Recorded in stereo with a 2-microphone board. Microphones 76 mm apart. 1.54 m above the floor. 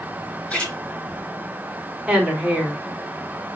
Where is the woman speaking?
15° right (ahead or behind), 1.7 m.